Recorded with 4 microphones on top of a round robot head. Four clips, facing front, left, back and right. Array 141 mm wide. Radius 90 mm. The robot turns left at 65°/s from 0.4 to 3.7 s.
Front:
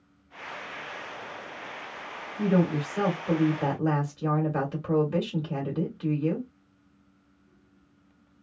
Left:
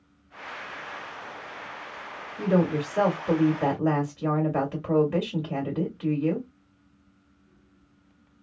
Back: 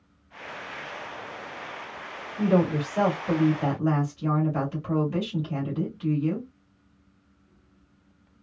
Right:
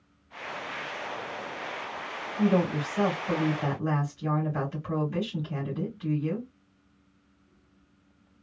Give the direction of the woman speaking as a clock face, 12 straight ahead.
7 o'clock.